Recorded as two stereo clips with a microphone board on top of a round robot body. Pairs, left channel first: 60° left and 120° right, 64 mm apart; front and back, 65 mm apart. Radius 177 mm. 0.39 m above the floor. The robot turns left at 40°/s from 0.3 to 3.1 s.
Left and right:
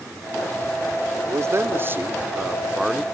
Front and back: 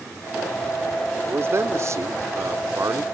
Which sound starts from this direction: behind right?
A man speaking, at 1.3 s.